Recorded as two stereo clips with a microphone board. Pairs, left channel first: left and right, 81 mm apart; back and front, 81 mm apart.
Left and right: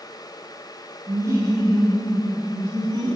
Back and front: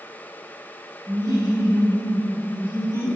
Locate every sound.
1.1 s laughter: 40° right, 1.4 m; by 3.2 s 55° right, 2.5 m